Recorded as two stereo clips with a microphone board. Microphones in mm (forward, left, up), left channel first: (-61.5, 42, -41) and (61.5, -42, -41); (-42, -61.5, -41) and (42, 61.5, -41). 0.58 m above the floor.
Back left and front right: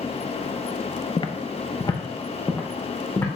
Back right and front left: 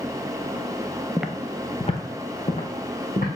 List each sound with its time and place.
1.2 s footsteps: 125° left, 0.6 m; by 3.3 s 145° right, 2 m